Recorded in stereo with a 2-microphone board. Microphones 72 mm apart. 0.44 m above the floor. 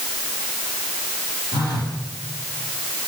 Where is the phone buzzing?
65° left (ahead or behind), 4 m.